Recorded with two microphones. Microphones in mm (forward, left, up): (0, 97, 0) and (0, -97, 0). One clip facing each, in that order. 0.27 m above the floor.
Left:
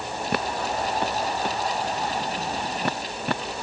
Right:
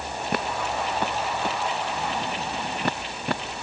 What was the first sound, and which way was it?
Only background noise.